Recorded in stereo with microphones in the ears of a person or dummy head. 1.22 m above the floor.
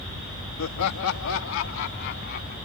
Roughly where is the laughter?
Left.